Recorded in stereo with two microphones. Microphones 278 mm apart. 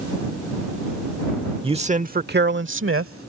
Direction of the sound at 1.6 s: 20° right (ahead or behind).